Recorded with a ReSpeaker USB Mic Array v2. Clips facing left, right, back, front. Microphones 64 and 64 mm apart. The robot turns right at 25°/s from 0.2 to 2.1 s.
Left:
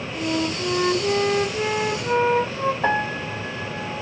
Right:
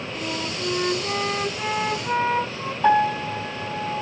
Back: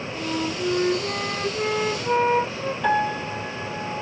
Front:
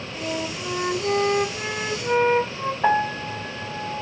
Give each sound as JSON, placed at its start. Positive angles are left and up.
{"t": 0.1, "sound": "a flute", "azimuth_deg": 15, "distance_m": 2.5}
{"t": 2.8, "sound": "a piano", "azimuth_deg": 55, "distance_m": 2.0}